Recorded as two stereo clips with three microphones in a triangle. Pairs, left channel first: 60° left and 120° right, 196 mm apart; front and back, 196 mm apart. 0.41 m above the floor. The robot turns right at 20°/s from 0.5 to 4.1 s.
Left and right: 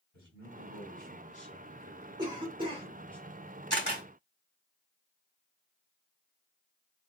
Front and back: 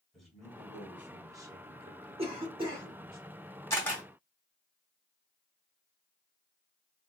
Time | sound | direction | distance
0.1 | a man speaking | 90° left | 1.8 m
2.2 | a cough | 165° right | 1.0 m
3.7 | a camera shutter | 75° left | 1.5 m